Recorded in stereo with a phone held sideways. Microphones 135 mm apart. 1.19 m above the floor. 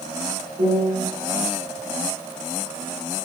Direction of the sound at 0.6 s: 70° right (ahead or behind).